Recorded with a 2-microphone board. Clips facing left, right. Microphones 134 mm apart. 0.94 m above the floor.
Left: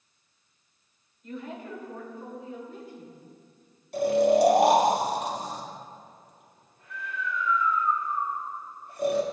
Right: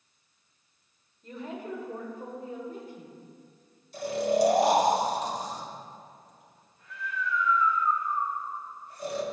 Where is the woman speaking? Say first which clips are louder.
Even; 35° right (ahead or behind), 3 m; by 3.2 s 50° right (ahead or behind), 4.5 m.